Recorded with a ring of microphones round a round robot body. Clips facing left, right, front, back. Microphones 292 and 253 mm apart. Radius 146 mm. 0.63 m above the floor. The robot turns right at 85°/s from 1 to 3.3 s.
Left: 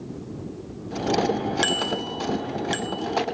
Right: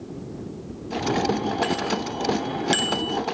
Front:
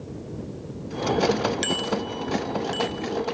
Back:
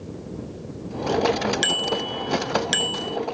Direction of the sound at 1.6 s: 110° left.